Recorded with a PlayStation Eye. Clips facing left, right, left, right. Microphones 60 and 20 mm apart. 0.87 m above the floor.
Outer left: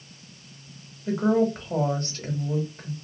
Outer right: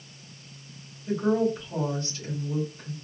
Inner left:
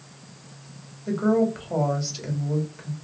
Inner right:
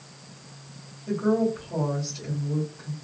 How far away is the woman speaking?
About 1.1 m.